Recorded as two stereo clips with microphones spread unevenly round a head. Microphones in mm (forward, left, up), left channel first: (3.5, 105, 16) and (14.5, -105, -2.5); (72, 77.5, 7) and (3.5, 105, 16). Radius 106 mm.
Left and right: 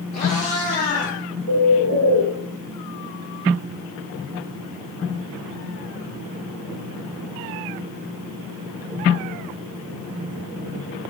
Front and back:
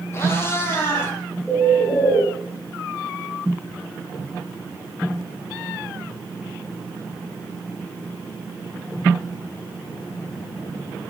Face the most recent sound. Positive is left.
turn(degrees=60)